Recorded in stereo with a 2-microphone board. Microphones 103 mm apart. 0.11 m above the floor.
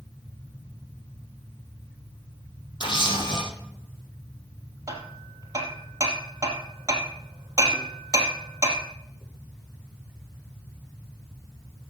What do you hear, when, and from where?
2.8 s a camera shutter: 50° left (ahead or behind), 4 m
4.9 s hammering: 30° right (ahead or behind), 2.5 m